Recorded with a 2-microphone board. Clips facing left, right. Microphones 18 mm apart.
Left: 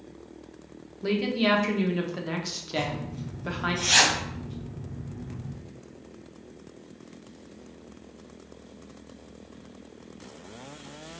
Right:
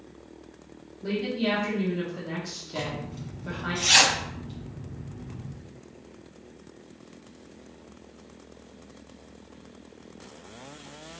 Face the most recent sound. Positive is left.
turn(degrees=-40)  # may be behind; listen again after turning